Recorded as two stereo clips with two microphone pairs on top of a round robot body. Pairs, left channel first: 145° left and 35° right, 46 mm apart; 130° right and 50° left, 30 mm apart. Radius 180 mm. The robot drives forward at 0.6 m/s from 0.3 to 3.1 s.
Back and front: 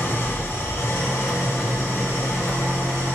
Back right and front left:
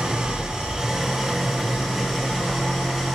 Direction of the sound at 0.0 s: 110° left.